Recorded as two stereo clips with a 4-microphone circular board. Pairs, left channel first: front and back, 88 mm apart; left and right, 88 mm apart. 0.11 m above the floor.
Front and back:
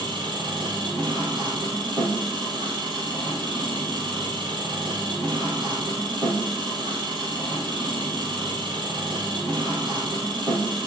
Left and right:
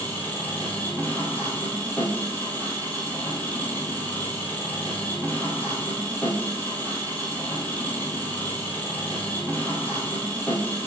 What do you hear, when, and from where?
0.0 s an engine running: 160° left, 3 m